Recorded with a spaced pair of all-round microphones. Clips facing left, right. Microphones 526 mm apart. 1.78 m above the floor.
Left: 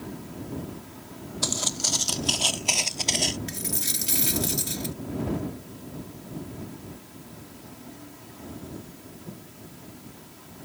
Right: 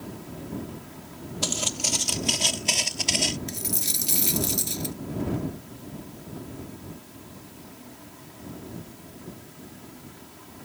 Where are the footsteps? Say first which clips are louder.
Right 1 dB; 50° right (ahead or behind); by 3.4 s 25° right (ahead or behind).